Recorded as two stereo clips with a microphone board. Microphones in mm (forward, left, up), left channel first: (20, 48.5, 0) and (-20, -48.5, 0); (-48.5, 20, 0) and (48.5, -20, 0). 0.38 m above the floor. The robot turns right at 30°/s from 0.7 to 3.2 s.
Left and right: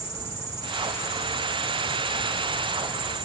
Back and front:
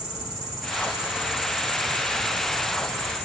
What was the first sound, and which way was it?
An insect, 110° right.